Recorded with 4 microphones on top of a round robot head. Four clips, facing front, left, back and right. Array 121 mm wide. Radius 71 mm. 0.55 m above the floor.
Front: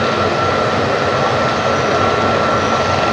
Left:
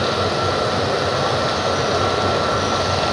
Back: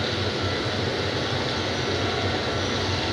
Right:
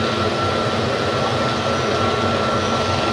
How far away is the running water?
About 1.4 m.